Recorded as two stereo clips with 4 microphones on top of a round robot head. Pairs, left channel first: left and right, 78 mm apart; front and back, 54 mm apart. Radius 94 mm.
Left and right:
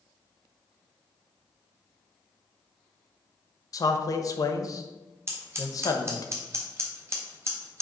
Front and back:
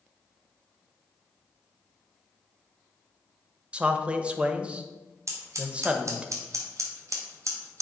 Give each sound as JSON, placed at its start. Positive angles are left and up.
{"t": 3.7, "sound": "a man speaking", "azimuth_deg": 115, "distance_m": 1.0}
{"t": 5.3, "sound": "scissors", "azimuth_deg": -150, "distance_m": 1.2}